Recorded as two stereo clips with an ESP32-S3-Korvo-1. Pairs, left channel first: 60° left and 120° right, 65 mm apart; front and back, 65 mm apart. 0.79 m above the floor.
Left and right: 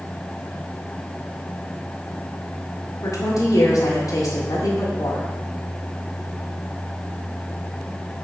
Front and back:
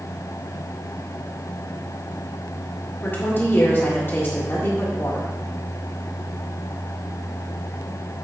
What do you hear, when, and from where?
3.0 s a woman speaking: 50° left, 1.7 m